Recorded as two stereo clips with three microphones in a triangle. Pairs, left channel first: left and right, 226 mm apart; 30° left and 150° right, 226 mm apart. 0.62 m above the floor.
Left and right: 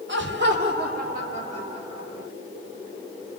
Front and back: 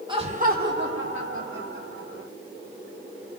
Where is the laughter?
85° right, 1.6 m; by 2.3 s 160° right, 3.5 m.